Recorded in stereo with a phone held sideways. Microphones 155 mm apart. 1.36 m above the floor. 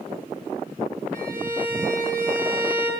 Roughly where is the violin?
Right.